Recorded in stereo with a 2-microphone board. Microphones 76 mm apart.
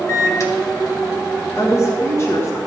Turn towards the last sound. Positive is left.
turn(degrees=35)  # may be behind; listen again after turning